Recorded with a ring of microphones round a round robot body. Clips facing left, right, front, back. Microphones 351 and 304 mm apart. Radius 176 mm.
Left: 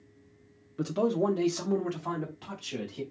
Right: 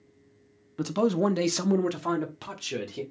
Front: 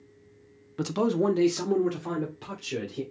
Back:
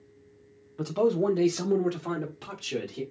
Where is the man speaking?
20° right, 0.6 m; by 3.0 s 100° right, 1.7 m.